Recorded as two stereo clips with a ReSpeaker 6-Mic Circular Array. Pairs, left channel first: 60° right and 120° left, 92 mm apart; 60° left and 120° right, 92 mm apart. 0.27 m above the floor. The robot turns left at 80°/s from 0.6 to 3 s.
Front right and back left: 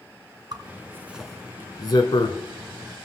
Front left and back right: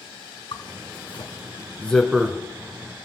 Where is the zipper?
85° left, 1.6 m; by 2.4 s 55° right, 1.6 m.